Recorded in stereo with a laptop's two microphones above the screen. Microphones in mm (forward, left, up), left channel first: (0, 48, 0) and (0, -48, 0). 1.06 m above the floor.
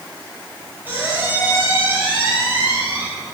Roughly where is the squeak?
Centre.